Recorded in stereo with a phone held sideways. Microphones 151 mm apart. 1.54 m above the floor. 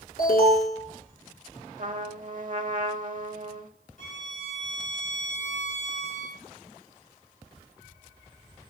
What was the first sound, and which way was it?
An alarm, 85° left.